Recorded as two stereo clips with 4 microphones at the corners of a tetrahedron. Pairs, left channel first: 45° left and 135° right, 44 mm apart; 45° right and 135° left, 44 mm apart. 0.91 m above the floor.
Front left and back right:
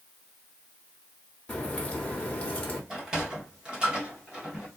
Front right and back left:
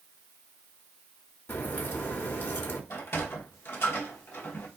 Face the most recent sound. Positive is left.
turn(degrees=-70)